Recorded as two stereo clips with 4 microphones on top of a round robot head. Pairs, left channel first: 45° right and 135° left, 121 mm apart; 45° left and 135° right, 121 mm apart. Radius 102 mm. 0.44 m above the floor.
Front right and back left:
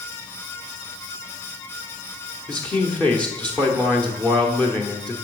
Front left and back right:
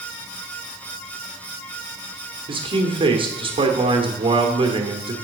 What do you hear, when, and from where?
2.5 s a man speaking: 125° right, 1.3 m